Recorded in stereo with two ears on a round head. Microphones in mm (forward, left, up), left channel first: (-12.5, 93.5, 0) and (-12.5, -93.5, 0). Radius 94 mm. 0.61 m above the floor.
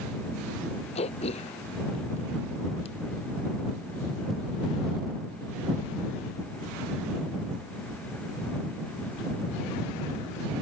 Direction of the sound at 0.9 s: 30° left (ahead or behind).